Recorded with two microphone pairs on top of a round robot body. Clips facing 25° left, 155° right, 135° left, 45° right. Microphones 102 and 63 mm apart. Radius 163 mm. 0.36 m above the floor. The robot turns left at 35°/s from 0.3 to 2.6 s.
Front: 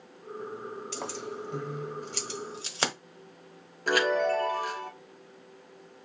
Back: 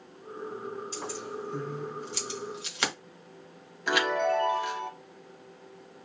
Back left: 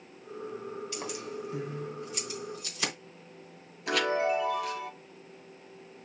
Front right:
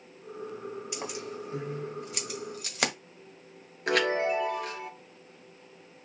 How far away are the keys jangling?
About 1.8 m.